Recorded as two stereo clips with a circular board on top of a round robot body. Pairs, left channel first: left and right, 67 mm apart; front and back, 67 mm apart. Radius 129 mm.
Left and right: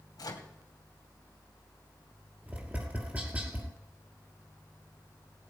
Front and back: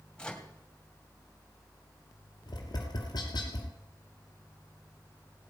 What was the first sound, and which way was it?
A microwave, 75° left.